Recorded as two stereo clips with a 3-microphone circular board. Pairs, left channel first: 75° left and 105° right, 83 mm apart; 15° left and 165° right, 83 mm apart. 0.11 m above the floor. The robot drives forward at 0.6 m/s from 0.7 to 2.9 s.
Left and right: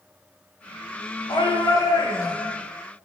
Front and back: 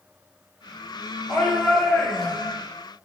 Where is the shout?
100° left, 5 m; by 2.5 s 110° left, 5 m.